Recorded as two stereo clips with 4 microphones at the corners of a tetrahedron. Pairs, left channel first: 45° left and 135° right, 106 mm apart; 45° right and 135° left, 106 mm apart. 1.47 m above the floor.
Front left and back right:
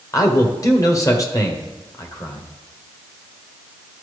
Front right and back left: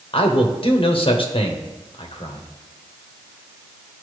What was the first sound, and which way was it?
A man speaking, 10° right.